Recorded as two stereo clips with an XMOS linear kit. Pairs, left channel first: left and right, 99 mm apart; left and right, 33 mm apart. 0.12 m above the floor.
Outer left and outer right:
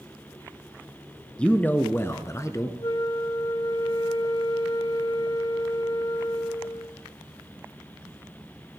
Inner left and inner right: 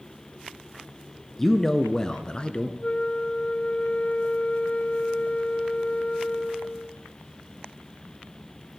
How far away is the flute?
About 1.0 m.